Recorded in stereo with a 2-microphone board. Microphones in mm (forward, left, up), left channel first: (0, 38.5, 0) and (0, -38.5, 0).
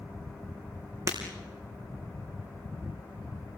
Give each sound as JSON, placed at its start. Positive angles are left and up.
{"t": 1.1, "sound": "breaking glass", "side_deg": -45, "distance_m": 4.0}